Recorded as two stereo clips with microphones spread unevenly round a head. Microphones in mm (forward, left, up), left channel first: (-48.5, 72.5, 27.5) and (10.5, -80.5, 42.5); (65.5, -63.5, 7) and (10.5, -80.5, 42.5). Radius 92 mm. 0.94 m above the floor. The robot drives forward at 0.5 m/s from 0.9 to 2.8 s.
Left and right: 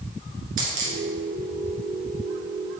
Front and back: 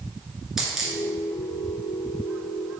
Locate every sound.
0.6 s a dropped coin: 100° right, 1.8 m